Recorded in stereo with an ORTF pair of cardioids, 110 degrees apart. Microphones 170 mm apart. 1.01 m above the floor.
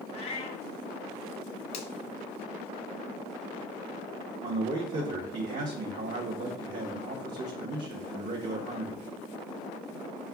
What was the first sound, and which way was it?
A cat meowing, 40° left.